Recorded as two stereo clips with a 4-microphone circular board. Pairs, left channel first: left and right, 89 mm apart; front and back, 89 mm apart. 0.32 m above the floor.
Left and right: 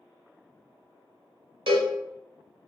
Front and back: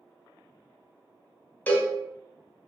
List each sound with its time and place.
1.7 s a cowbell: 70° right, 0.5 m